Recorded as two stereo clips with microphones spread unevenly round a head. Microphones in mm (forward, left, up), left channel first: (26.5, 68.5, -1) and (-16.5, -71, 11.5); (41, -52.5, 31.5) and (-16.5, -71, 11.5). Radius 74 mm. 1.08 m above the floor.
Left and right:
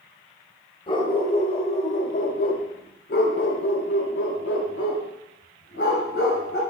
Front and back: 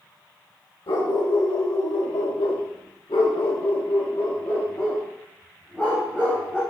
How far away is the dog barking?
About 2 m.